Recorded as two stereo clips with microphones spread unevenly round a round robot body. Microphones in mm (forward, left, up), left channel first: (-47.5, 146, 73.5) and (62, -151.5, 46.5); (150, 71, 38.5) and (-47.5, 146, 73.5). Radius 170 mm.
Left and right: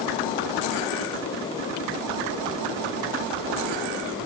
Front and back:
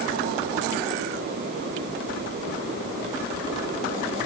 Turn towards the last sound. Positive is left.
No sound to turn to.